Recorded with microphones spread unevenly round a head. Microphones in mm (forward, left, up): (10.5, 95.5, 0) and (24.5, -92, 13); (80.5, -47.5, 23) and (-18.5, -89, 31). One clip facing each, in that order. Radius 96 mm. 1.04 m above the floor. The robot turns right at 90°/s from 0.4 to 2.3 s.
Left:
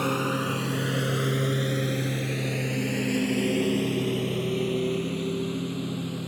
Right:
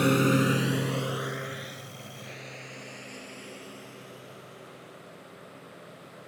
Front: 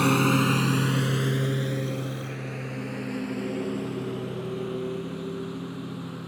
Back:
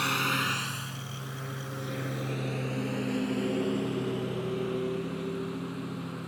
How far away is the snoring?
I don't hear snoring.